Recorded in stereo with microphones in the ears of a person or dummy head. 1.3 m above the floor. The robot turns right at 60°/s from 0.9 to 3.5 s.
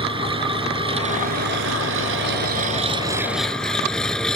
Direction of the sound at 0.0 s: 150° right.